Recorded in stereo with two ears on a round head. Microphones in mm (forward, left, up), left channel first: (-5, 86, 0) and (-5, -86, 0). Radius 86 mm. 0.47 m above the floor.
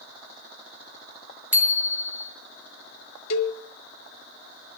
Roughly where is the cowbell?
Left.